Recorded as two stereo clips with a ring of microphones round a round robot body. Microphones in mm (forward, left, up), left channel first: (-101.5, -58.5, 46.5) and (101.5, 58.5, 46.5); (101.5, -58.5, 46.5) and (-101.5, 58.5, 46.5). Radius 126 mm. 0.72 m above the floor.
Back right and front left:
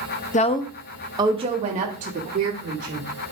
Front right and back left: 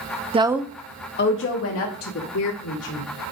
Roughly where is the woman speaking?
Behind.